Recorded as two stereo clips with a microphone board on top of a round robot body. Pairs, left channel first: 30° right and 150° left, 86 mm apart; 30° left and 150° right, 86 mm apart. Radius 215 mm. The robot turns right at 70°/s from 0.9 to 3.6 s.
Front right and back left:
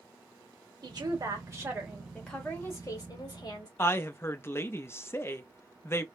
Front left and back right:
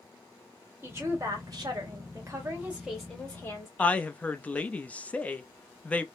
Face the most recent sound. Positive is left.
turn(degrees=-25)